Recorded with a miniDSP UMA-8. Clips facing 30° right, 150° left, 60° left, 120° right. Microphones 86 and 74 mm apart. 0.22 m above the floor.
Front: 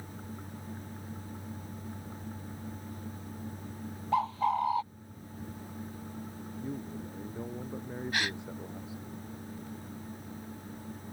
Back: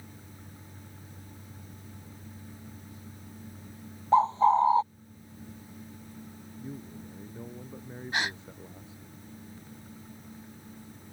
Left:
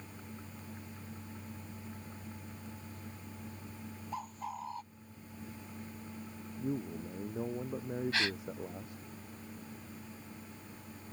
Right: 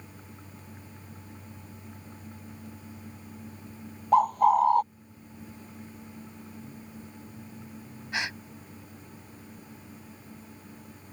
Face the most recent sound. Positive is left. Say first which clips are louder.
# back 3 dB, right 5 dB
turn(degrees=-175)